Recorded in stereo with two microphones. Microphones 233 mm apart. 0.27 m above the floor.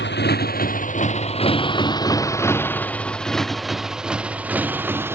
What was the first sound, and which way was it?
A motorcycle, 50° left (ahead or behind).